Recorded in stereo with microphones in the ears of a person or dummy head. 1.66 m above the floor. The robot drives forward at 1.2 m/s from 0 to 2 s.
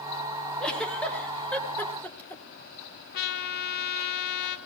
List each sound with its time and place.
0.6 s a giggle: 15° left (ahead or behind), 5.5 m; by 2.5 s 20° left (ahead or behind), 4 m
3.1 s a trumpet: 60° left (ahead or behind), 2 m